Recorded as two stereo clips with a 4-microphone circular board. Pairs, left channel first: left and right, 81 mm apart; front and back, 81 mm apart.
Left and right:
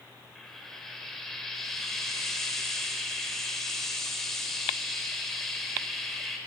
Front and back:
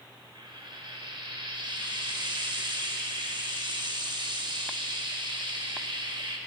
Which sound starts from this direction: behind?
Frying, at 0.3 s.